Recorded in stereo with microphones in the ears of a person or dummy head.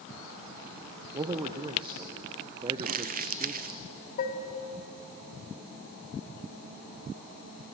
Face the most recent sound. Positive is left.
turn(degrees=55)  # may be behind; listen again after turning